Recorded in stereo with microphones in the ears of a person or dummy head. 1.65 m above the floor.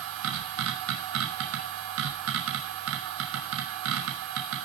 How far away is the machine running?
About 3 m.